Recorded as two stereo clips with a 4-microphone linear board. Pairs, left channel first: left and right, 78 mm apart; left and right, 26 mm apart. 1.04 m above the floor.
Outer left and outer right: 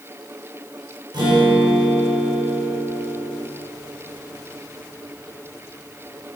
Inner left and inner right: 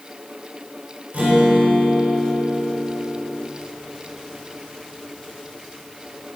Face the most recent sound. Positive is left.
turn(degrees=-65)  # may be behind; listen again after turning